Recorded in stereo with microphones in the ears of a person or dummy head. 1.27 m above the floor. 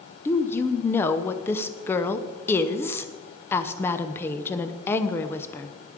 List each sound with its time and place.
0.2 s a woman speaking: 15° left (ahead or behind), 0.6 m